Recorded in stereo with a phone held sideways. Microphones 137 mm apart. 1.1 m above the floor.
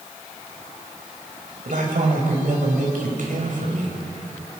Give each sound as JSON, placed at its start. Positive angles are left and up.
{"t": 1.6, "sound": "a man speaking", "side_deg": -75, "distance_m": 6.0}